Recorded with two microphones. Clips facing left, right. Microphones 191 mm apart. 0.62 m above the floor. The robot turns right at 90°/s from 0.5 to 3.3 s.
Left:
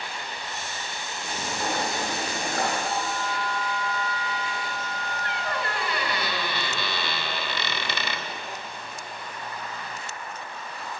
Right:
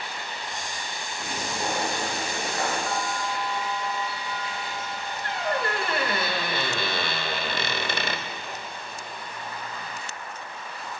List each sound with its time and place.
1.2 s frying: 60° right, 5 m; by 2.8 s 80° left, 5 m
2.9 s a bell: 145° left, 1.9 m; by 6.2 s 175° right, 1.9 m
5.2 s a squeak: 45° right (ahead or behind), 1.1 m